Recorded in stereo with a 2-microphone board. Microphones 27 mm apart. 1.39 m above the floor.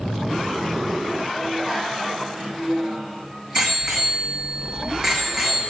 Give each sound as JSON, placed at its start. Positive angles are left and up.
{"t": 1.4, "sound": "a bicycle bell", "side_deg": -25, "distance_m": 5.0}